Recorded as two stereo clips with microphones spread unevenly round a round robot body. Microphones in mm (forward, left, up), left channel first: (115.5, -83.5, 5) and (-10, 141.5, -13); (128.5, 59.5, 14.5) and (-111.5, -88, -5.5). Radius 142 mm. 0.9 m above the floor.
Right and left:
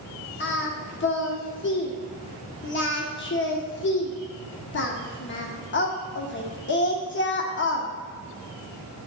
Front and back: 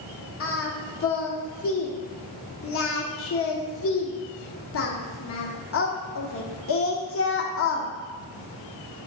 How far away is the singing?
About 1.0 m.